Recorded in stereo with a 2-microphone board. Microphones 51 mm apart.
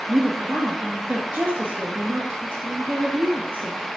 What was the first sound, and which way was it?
A woman speaking, 35° right (ahead or behind).